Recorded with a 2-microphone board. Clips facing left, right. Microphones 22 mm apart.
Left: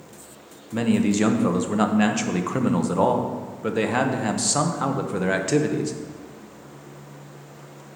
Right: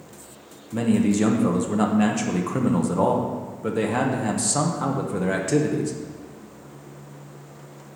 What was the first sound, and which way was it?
A man speaking, 35° left (ahead or behind).